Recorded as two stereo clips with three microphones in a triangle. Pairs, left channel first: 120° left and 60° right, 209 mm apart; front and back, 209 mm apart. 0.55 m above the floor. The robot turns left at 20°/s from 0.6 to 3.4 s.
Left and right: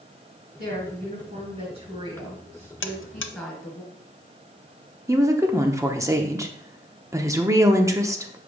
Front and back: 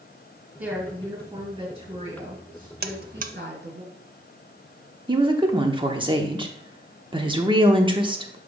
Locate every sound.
0.6 s a woman speaking: 95° right, 3 m; by 3.8 s 150° right, 3 m
2.8 s a buzzer: 140° left, 0.5 m; by 3.3 s 130° left, 0.5 m
5.1 s a woman speaking: 130° right, 0.8 m